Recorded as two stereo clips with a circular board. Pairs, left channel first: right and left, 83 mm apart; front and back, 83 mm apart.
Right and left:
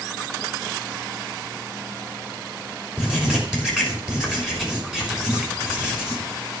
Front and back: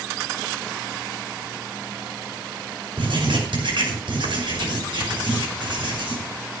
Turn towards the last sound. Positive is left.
turn(degrees=170)